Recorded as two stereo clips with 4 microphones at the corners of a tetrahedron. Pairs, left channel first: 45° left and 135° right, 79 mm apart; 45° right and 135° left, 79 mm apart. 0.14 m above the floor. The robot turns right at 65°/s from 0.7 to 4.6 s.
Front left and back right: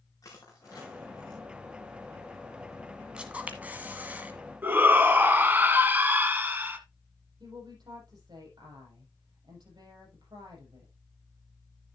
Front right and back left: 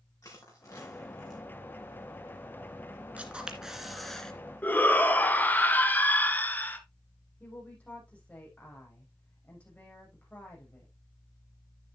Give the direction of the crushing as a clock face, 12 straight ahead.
12 o'clock.